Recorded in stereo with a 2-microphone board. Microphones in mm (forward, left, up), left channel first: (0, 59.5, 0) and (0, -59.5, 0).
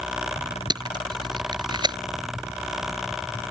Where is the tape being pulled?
40° right (ahead or behind).